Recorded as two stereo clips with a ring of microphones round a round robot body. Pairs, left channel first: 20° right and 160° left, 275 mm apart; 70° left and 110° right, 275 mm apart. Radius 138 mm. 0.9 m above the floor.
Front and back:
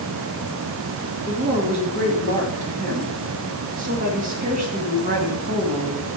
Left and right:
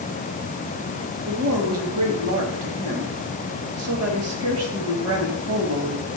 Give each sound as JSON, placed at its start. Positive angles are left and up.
{"t": 1.3, "sound": "a woman speaking", "azimuth_deg": -140, "distance_m": 1.6}